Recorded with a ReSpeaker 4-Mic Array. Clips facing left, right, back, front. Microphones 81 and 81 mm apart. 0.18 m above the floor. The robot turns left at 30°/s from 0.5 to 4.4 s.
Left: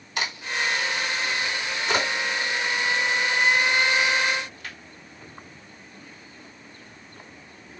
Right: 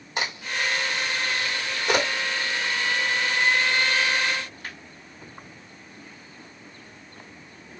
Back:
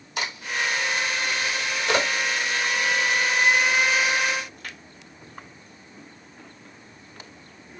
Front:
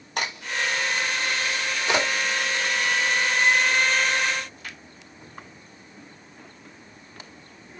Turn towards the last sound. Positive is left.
turn(degrees=-145)